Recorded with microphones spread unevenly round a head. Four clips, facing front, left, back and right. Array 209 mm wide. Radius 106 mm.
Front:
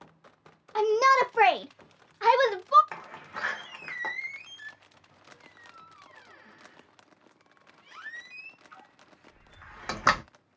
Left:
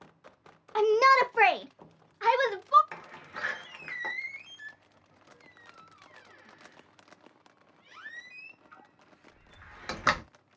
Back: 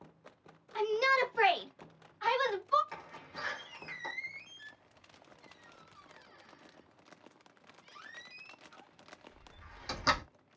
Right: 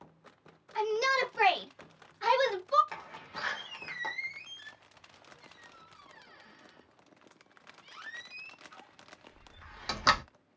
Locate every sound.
0.8 s a shout: 55° left, 0.6 m; by 2.8 s straight ahead, 1.4 m
2.9 s a door slam: 10° left, 0.8 m